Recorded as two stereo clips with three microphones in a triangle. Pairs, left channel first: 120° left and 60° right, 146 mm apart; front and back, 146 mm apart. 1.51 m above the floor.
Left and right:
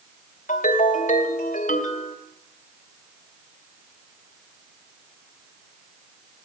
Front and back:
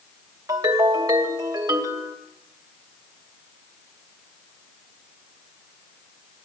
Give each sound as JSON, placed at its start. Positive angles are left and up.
{"t": 0.5, "sound": "a ringtone", "azimuth_deg": 120, "distance_m": 2.5}